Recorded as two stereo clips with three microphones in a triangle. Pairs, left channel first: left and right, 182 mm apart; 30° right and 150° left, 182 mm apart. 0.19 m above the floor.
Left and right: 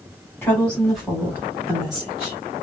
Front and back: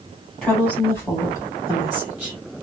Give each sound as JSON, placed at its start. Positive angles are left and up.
{"t": 0.4, "sound": "a woman speaking", "azimuth_deg": 45, "distance_m": 1.6}